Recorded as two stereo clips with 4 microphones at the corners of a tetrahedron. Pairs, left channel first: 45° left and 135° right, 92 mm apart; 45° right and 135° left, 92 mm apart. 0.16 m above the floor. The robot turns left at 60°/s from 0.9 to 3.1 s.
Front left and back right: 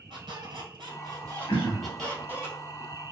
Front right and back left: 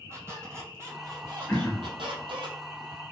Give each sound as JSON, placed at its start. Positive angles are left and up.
{"t": 0.1, "sound": "a squeak", "azimuth_deg": -165, "distance_m": 1.4}
{"t": 1.5, "sound": "throat clearing", "azimuth_deg": 25, "distance_m": 1.2}